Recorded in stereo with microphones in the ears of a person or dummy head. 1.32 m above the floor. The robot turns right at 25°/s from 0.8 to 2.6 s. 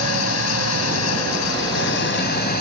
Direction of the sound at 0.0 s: 85° left.